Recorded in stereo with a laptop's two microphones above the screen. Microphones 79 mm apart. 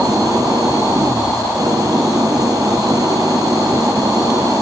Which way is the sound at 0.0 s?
45° right (ahead or behind).